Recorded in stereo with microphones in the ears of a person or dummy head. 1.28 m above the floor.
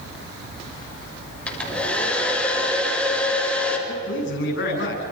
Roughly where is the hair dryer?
Centre.